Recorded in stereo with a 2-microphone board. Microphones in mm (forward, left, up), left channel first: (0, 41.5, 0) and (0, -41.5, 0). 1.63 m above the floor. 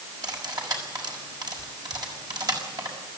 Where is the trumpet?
I don't hear a trumpet.